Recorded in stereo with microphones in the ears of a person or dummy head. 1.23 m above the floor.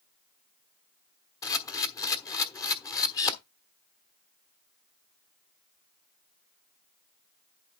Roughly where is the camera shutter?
Left.